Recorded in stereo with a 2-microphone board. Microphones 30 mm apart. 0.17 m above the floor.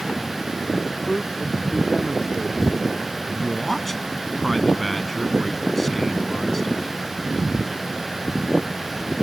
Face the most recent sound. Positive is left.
turn(degrees=10)  # may be behind; listen again after turning